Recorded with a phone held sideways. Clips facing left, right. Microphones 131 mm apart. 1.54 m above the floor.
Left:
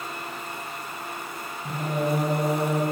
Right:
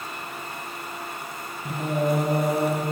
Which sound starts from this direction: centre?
Singing, at 1.6 s.